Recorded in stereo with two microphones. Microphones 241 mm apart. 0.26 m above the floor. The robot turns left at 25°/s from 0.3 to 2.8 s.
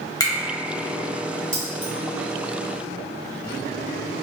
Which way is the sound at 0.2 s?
15° left (ahead or behind).